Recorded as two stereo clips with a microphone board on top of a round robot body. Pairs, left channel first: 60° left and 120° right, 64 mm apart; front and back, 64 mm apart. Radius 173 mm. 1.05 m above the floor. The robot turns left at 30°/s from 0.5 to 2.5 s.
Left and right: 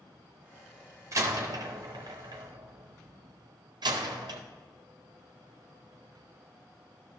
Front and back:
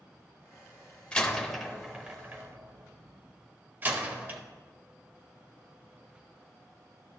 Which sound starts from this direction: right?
A door slam, at 1.1 s.